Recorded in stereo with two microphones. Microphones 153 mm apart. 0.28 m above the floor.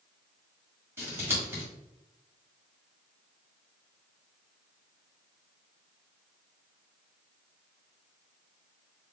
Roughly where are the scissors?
Centre.